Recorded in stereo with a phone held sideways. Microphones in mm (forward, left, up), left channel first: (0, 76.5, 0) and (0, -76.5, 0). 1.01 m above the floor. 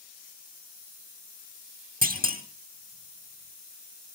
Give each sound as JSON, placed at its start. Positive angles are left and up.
{"t": 2.0, "sound": "a clunk", "side_deg": -70, "distance_m": 2.5}